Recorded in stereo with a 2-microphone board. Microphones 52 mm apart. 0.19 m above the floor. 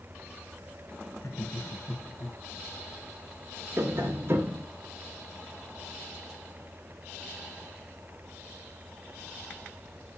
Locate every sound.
1.2 s laughter: 60° left (ahead or behind), 2.0 m
3.8 s tapping: 45° right (ahead or behind), 3 m